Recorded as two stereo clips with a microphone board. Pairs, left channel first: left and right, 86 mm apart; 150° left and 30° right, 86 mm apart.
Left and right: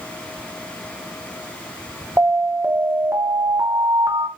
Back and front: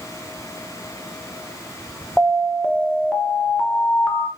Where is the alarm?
135° right, 0.8 m.